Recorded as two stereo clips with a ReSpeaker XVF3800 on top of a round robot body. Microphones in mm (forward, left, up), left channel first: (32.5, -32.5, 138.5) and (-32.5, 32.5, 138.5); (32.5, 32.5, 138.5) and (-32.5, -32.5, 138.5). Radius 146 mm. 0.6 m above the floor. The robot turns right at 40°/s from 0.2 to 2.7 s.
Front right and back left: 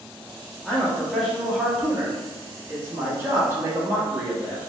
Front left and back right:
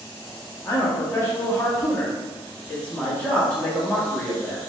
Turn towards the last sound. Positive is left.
turn(degrees=105)